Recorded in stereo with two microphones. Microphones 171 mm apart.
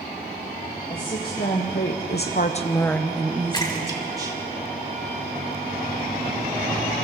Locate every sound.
0.9 s a woman speaking: 60° left (ahead or behind), 2.5 m; by 4.4 s 25° right (ahead or behind), 3 m
3.5 s a splash: 25° left (ahead or behind), 2.5 m